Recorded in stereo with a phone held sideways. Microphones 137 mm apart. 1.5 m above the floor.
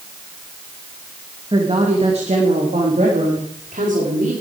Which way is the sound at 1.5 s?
40° right (ahead or behind).